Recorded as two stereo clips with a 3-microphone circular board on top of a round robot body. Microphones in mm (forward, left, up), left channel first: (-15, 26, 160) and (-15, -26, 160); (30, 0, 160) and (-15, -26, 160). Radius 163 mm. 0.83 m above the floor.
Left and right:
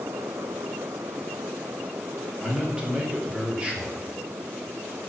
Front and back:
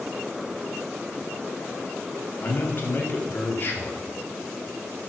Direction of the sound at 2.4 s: 20° right.